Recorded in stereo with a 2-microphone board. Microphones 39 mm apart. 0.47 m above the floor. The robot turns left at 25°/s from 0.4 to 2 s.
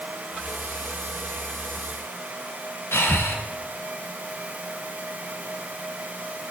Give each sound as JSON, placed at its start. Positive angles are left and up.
{"t": 2.9, "sound": "breathing", "side_deg": 85, "distance_m": 3.0}